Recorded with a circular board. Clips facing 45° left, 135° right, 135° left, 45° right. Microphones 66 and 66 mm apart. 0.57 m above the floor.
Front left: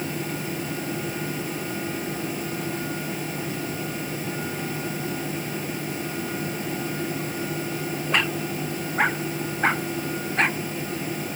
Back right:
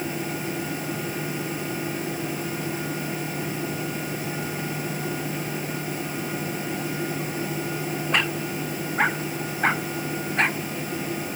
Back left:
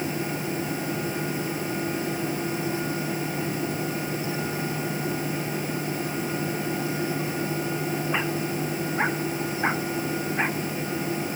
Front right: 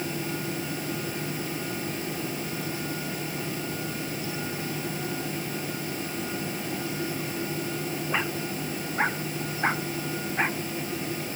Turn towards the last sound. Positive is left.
No sound to turn to.